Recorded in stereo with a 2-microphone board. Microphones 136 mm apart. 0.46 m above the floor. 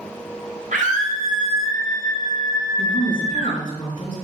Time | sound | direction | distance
0.7 | a scream | 75° right (ahead or behind) | 3 m
2.8 | a woman speaking | 35° left (ahead or behind) | 3.5 m